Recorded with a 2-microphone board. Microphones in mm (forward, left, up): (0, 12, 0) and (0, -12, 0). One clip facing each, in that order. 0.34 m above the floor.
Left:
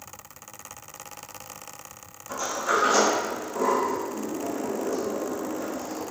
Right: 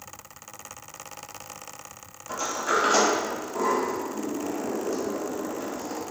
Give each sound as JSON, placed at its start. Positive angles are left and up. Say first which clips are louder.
{"t": 2.3, "sound": "a sliding door", "louder": "even", "side_deg": -20, "distance_m": 1.2}